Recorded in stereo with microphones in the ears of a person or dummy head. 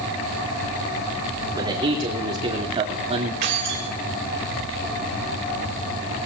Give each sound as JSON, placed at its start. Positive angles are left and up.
{"t": 1.6, "sound": "a man speaking", "side_deg": -25, "distance_m": 4.0}
{"t": 3.4, "sound": "keys jangling", "side_deg": -55, "distance_m": 3.0}